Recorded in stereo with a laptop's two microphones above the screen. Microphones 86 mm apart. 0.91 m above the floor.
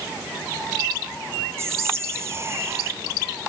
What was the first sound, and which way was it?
Whispering, 35° right (ahead or behind).